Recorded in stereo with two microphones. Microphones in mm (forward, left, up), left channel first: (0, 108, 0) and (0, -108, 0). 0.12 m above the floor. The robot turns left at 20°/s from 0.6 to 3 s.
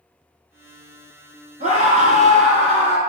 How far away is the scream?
About 1.4 m.